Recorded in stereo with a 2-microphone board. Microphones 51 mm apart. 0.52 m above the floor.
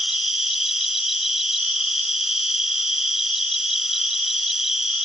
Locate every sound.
0.0 s an insect: 5° right (ahead or behind)